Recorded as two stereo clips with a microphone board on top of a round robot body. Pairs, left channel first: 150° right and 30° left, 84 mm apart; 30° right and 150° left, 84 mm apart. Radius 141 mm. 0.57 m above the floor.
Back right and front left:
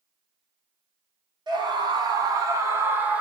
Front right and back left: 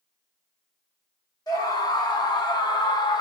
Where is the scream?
10° left, 1.5 m; by 3.2 s 40° right, 1.0 m.